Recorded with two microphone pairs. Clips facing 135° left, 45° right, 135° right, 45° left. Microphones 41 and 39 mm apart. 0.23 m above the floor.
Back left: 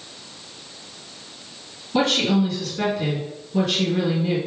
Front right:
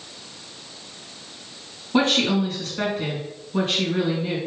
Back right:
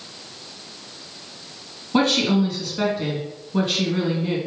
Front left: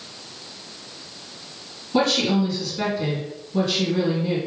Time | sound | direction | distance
1.9 | a woman speaking | 85° right | 2.5 m